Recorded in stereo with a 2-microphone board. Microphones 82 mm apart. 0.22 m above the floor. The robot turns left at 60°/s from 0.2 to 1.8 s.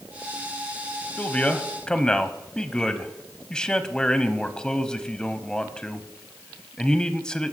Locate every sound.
1.2 s a man speaking: 20° left (ahead or behind), 1.0 m; by 7.5 s 10° left (ahead or behind), 1.0 m